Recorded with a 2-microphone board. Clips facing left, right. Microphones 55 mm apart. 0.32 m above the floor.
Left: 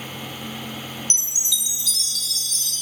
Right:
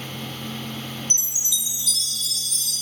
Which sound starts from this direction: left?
A chime, at 1.1 s.